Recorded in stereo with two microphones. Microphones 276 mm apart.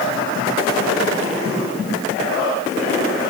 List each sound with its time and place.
Only background noise.